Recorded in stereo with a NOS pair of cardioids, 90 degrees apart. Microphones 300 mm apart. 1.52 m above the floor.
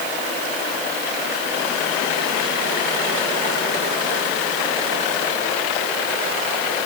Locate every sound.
Only background noise.